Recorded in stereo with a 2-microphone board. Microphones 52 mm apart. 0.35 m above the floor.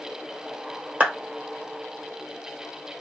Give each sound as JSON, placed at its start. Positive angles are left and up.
{"t": 1.0, "sound": "a clap", "side_deg": -25, "distance_m": 1.1}